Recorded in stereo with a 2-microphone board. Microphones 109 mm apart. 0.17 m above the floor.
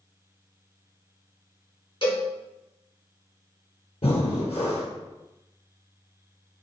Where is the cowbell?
50° left (ahead or behind), 2.5 m.